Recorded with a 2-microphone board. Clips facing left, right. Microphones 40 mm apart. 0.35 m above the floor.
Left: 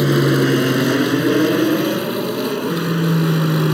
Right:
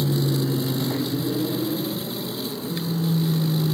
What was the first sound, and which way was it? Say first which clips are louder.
An aircraft: left 9 dB; 70° left (ahead or behind).